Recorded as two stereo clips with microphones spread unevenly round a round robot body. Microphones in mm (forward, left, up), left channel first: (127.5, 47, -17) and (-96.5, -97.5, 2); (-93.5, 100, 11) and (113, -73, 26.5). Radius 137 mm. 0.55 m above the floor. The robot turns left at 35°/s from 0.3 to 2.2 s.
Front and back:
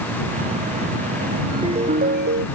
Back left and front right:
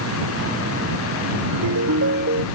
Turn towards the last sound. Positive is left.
turn(degrees=-95)